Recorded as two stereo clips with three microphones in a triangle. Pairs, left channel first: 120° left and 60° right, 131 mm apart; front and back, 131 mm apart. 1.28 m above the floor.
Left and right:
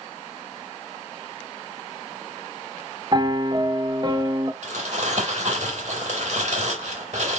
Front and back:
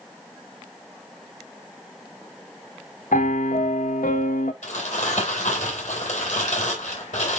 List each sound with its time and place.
3.1 s a piano: 5° right, 0.7 m
4.6 s crumpling: 30° right, 4 m